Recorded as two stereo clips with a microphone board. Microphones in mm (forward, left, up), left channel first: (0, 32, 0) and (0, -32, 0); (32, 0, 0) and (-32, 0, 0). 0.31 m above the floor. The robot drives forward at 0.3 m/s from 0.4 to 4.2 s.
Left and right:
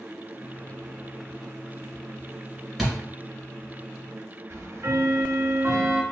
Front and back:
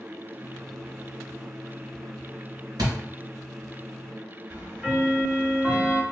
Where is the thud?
170° right, 2.5 m.